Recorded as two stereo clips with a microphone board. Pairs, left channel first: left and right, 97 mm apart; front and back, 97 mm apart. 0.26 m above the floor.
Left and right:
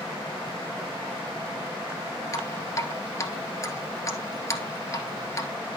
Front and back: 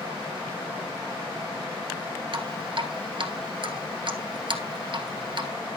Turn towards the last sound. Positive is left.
turn(degrees=145)